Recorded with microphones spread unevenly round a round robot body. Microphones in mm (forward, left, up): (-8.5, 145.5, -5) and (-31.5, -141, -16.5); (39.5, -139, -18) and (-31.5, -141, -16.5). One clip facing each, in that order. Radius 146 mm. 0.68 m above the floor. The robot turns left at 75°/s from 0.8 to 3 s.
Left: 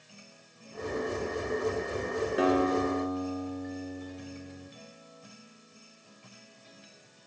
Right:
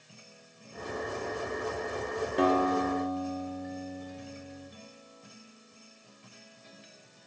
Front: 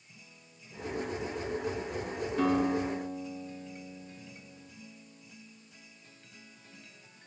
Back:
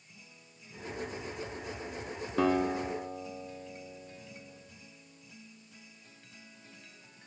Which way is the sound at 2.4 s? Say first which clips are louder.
Even, even; 175° left.